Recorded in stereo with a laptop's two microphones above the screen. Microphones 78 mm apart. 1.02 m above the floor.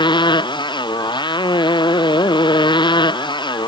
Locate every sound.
0.0 s a motorcycle: 90° left